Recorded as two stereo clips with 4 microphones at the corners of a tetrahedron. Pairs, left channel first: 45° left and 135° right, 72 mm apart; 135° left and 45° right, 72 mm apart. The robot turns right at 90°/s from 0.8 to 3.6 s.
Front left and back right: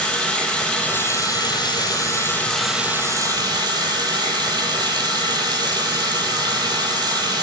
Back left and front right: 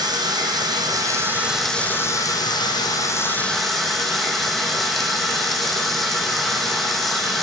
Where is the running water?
30° right, 0.9 m; by 7.5 s 140° right, 0.9 m.